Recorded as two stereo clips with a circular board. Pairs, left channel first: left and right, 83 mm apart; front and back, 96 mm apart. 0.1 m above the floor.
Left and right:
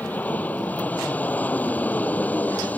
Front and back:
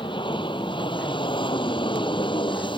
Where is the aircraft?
20° left.